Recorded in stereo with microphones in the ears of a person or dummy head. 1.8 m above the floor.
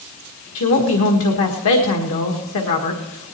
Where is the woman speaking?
65° left (ahead or behind), 1.8 m.